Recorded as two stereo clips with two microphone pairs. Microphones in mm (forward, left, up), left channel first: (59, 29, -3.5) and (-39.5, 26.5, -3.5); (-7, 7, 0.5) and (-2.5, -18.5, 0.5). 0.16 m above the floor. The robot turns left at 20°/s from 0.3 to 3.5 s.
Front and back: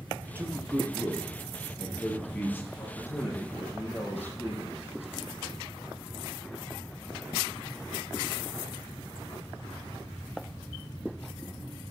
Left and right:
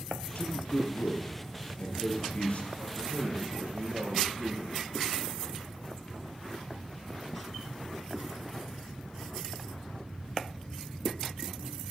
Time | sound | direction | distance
0.3 | a man speaking | 115° left | 4 m
2.8 | a man speaking | 60° right | 5.5 m